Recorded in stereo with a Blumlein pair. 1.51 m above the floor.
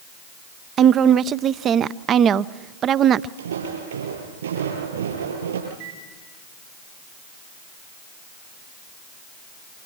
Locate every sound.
0.8 s a woman speaking: 30° right, 0.6 m
3.4 s footsteps: 65° right, 8 m
5.7 s a microwave: 65° right, 4.5 m